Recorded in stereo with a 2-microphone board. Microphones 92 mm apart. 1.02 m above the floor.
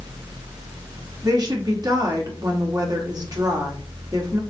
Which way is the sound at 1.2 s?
45° right (ahead or behind).